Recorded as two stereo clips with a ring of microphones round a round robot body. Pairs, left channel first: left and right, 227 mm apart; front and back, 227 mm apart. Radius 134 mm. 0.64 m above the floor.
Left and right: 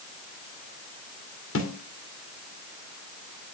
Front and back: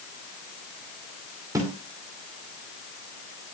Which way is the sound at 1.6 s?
105° left.